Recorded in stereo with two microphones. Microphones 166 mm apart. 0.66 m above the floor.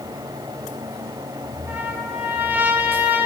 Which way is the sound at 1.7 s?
10° right (ahead or behind).